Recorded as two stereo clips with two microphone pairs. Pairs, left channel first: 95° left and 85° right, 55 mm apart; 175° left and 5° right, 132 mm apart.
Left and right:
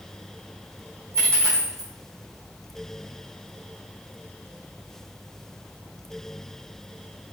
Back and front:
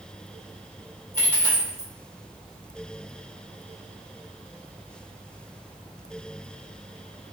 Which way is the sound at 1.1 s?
110° right.